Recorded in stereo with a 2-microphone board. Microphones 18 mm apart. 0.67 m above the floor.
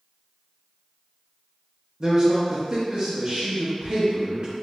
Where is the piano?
No piano in this recording.